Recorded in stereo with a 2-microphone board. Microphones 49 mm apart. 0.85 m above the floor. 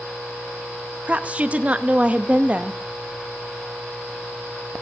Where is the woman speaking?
30° right (ahead or behind), 0.6 m.